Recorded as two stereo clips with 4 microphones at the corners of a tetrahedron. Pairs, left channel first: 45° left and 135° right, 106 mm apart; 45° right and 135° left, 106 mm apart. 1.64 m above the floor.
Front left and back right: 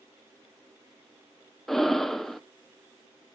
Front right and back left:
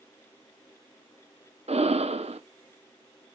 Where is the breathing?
135° left, 0.9 m.